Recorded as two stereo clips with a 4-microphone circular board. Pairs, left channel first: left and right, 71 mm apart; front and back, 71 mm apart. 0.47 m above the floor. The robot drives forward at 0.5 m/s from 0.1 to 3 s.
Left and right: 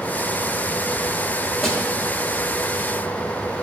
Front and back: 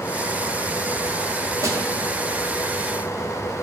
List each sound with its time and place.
1.6 s a snare drum: 175° left, 1.5 m